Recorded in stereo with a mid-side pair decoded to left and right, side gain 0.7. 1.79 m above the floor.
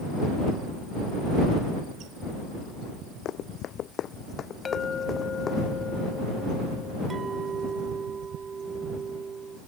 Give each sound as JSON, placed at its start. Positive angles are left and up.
{"t": 3.2, "sound": "running footsteps", "azimuth_deg": 50}
{"t": 4.7, "sound": "a clink", "azimuth_deg": 30}
{"t": 7.1, "sound": "a clink", "azimuth_deg": -25}